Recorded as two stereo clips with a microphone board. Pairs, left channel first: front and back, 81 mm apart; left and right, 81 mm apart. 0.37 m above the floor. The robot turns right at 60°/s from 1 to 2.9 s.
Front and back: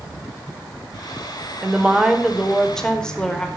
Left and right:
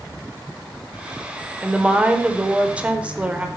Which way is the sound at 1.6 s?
140° right.